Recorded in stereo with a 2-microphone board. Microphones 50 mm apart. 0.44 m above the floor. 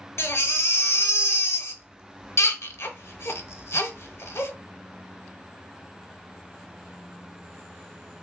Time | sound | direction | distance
0.2 | a baby crying | 60° left (ahead or behind) | 0.7 m